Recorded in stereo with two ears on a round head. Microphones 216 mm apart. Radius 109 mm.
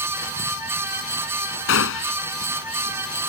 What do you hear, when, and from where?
1.7 s a gunshot: 55° left (ahead or behind)